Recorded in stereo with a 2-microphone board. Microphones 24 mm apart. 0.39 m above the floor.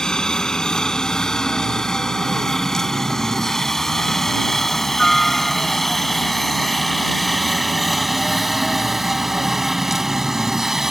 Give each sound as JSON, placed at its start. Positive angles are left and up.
{"t": 0.0, "sound": "a helicopter", "side_deg": 30}